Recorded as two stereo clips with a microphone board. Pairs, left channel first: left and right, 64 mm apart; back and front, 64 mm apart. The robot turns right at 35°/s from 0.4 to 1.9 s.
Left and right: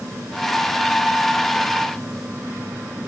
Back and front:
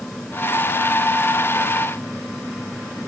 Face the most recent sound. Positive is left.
No sound to turn to.